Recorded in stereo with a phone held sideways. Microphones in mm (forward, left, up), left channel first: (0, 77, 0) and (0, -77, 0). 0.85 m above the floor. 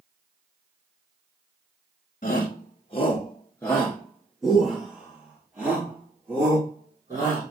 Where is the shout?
55° left (ahead or behind), 0.8 m; by 7.5 s 25° right (ahead or behind), 2.5 m.